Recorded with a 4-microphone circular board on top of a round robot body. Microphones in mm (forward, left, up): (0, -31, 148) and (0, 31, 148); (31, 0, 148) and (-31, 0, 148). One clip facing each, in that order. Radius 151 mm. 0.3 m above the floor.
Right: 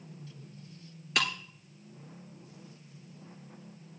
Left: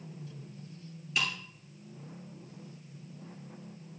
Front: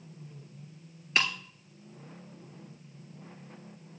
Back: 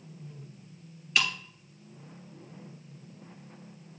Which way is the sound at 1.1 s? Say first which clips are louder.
Right 2 dB, back 1 dB; 60° right.